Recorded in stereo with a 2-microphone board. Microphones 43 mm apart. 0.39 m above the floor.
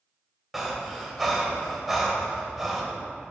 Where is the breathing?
Centre (ahead or behind), 1.1 m.